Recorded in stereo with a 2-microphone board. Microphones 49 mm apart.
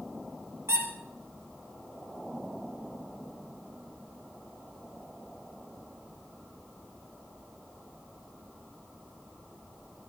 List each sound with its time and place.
0.7 s a squeak: 65° right (ahead or behind), 3.5 m